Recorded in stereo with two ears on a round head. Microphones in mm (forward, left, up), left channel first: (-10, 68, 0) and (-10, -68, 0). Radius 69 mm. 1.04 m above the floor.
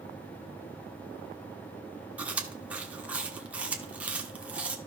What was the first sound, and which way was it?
Chewing, 10° right (ahead or behind).